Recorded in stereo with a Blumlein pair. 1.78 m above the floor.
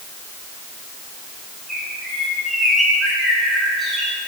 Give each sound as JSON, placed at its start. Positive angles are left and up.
{"t": 1.7, "sound": "a bird", "azimuth_deg": -5, "distance_m": 3.0}